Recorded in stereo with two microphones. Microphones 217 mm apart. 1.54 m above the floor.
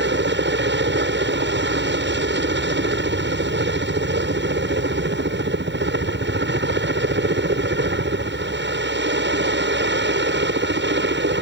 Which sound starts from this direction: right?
A helicopter, at 0.0 s.